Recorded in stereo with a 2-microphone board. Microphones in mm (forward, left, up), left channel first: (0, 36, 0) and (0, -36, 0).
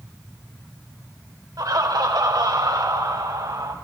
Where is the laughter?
60° right (ahead or behind), 1.8 m; by 3.8 s 75° right (ahead or behind), 3.5 m.